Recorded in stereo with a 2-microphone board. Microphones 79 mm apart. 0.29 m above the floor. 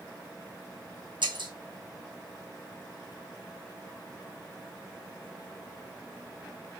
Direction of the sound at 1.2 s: 85° right.